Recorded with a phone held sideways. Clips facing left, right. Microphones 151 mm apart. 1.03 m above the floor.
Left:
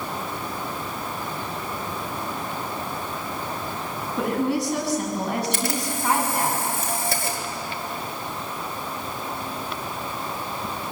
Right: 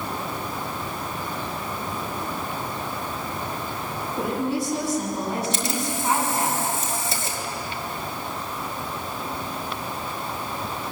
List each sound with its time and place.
4.2 s a woman speaking: 70° left (ahead or behind), 8 m
5.5 s a camera shutter: 60° left (ahead or behind), 4.5 m